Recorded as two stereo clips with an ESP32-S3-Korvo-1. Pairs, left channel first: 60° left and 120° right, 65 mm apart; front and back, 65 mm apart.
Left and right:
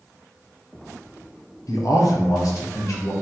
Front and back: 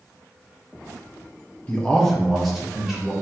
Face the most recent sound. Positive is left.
turn(degrees=100)